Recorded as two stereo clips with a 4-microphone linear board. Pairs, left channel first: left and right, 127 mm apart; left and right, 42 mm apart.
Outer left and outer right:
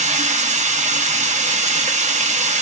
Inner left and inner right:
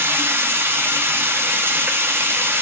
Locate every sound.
0.0 s running water: 70° right (ahead or behind), 0.8 m